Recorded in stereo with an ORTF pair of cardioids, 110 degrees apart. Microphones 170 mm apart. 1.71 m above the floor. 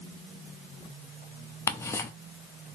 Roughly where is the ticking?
Ahead.